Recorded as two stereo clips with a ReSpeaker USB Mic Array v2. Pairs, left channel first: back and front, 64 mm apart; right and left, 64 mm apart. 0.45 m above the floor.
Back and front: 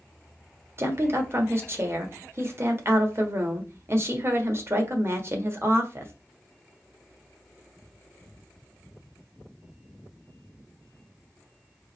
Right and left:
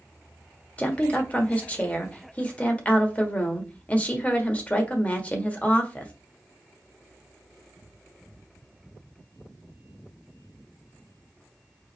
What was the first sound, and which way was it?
A woman speaking, 30° right.